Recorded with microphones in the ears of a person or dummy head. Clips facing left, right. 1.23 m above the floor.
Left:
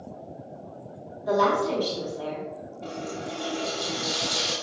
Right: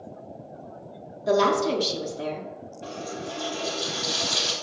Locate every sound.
1.3 s a woman speaking: 30° right (ahead or behind), 0.6 m
2.8 s a running tap: 5° right (ahead or behind), 1.0 m